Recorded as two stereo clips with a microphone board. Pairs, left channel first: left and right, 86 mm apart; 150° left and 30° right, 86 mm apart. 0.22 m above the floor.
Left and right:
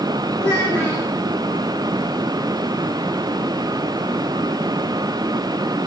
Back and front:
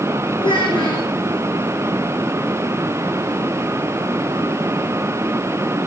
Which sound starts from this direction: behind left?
A child speaking, at 0.4 s.